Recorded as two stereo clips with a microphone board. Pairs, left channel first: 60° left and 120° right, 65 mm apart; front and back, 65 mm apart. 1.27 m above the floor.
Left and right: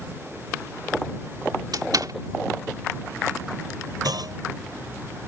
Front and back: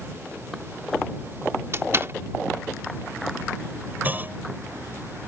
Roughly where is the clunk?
Behind right.